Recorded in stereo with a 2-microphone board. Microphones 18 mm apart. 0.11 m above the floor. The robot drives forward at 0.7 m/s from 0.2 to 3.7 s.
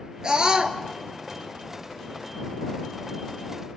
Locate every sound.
0.2 s a scream: 45° right (ahead or behind), 1.9 m